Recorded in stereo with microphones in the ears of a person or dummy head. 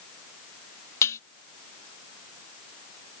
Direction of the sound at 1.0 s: 15° left (ahead or behind).